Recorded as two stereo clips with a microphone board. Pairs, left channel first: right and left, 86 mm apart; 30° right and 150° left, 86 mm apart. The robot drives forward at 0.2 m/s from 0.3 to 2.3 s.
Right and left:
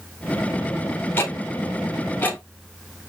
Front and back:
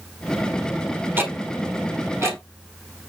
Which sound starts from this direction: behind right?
Ticking, at 1.2 s.